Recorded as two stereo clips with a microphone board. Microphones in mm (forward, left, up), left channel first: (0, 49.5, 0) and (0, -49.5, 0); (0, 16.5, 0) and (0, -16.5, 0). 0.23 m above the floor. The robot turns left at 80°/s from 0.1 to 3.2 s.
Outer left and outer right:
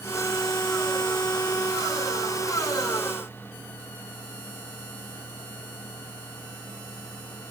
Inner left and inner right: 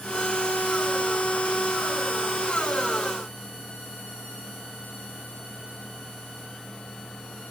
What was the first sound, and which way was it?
Only background noise.